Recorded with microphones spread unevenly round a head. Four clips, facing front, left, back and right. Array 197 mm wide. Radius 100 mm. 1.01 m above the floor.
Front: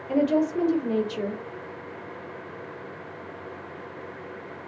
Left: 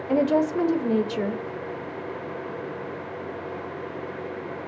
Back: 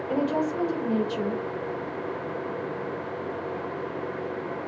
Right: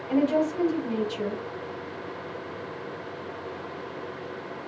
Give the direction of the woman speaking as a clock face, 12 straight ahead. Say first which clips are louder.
Left 2 dB, front 4 dB; 10 o'clock.